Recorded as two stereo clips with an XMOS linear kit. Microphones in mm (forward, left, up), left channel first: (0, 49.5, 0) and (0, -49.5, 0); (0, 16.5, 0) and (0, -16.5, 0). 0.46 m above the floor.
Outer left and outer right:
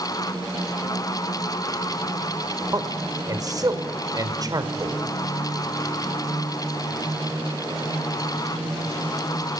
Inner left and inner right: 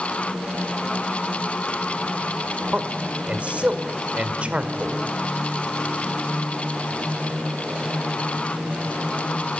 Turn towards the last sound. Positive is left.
turn(degrees=-40)  # may be behind; listen again after turning